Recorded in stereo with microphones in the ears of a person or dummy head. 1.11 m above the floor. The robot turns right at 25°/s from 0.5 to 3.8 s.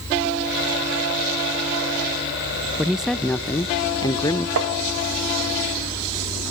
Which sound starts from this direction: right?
Tapping, at 4.6 s.